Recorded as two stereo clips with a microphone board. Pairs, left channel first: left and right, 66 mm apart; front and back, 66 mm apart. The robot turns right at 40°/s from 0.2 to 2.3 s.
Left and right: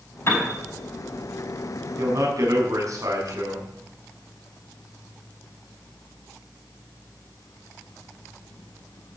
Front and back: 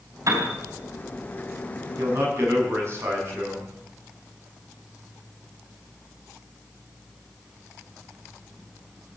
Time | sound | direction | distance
0.3 | a piano | 140° left | 4 m
2.0 | a man speaking | 140° right | 6.5 m